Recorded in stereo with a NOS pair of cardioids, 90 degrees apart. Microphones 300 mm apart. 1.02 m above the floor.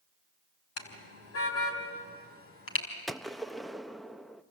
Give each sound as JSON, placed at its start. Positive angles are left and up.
{"t": 0.8, "sound": "a car horn", "azimuth_deg": 55, "distance_m": 4.5}
{"t": 3.1, "sound": "a gunshot", "azimuth_deg": 0, "distance_m": 0.8}